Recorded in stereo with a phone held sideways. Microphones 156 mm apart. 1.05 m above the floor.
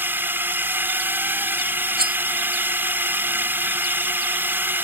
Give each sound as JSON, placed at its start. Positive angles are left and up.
{"t": 0.0, "sound": "a drone", "side_deg": -15}
{"t": 2.0, "sound": "cutlery clinking", "side_deg": -85}